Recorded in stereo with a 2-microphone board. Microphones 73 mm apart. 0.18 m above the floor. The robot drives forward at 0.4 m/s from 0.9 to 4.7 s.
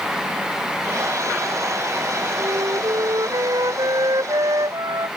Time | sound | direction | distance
2.4 | a flute | 65° right (ahead or behind) | ?